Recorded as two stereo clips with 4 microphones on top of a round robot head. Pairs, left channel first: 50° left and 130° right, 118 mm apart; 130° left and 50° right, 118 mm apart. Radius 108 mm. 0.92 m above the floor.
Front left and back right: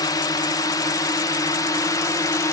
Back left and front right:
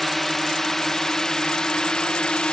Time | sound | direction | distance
0.0 | a drone | 45° left | ?